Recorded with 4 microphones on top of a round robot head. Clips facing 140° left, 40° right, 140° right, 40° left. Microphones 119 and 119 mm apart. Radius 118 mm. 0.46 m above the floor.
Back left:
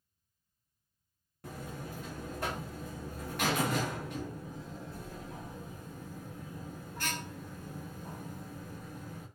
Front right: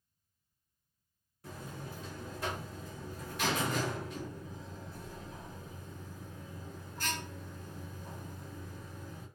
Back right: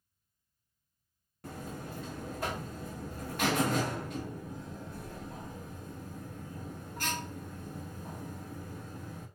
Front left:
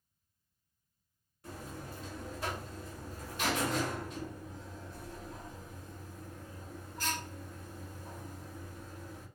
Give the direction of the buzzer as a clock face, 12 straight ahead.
6 o'clock.